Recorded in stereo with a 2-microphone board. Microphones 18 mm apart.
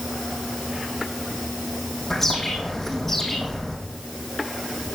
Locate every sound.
2.1 s a bird: 15° left (ahead or behind), 4 m